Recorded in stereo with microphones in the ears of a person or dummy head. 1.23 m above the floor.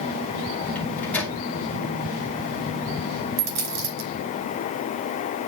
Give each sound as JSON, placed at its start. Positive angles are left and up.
{"t": 0.8, "sound": "a microwave", "side_deg": 10, "distance_m": 2.0}
{"t": 3.4, "sound": "a dropped coin", "side_deg": -80, "distance_m": 4.5}